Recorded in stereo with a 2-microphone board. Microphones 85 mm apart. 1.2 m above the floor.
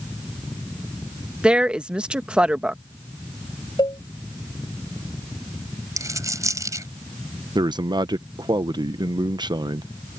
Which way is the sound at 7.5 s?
60° right (ahead or behind).